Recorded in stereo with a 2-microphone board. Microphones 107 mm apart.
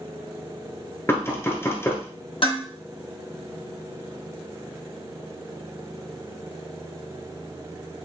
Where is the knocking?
25° left (ahead or behind), 1.2 m.